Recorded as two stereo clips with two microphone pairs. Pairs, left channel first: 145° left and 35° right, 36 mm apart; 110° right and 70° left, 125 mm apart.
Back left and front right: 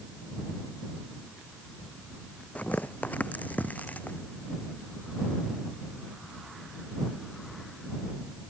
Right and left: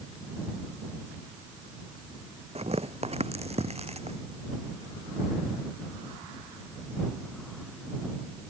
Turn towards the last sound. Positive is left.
turn(degrees=105)